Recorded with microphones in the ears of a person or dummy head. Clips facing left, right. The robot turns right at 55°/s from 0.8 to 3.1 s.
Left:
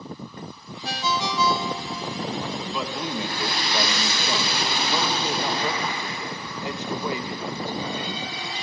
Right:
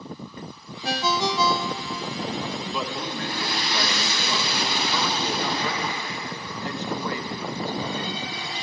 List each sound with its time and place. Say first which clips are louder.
0.8 s a ringtone: right 3 dB; 65° right, 1.1 m; by 2.1 s 5° left, 1.1 m
2.7 s a man speaking: left 1 dB; 5° right (ahead or behind), 1.6 m; by 8.2 s 20° left (ahead or behind), 1.6 m